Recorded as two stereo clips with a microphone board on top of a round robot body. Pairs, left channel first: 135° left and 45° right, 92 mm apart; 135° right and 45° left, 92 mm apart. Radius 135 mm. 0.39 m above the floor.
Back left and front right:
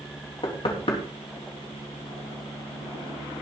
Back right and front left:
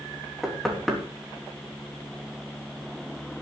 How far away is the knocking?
About 3.5 m.